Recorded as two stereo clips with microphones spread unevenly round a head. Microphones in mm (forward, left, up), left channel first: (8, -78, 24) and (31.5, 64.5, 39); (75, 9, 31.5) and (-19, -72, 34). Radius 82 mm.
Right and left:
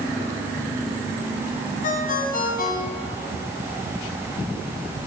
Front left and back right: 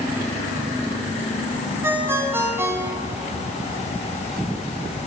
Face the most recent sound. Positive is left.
turn(degrees=-70)